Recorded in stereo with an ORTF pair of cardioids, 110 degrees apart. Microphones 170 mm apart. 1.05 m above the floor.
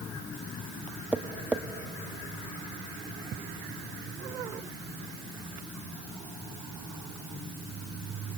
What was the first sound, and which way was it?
Tapping, 10° right.